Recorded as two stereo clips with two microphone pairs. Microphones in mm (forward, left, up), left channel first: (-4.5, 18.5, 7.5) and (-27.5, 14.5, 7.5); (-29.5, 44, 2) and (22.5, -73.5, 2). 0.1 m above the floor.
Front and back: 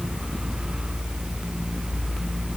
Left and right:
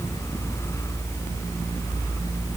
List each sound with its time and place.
Only background noise.